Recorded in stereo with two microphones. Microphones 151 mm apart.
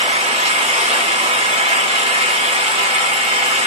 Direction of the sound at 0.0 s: 45° right (ahead or behind).